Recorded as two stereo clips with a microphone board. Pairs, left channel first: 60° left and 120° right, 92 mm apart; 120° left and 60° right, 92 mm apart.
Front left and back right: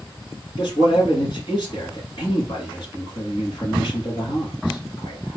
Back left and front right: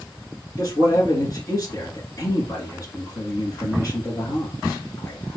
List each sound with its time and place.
0.6 s a man speaking: 75° left, 2 m